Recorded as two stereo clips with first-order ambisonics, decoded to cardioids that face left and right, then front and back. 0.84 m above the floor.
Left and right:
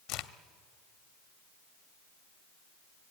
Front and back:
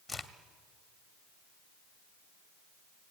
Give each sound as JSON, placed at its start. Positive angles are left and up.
{"t": 0.1, "sound": "a crack", "azimuth_deg": 80, "distance_m": 1.0}